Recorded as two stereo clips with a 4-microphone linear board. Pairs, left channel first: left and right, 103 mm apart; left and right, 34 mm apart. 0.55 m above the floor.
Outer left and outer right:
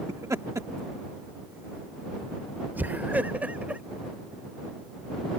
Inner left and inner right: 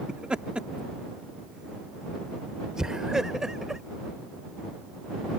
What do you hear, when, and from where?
0.1 s laughter: 30° right (ahead or behind); by 3.8 s 15° right (ahead or behind)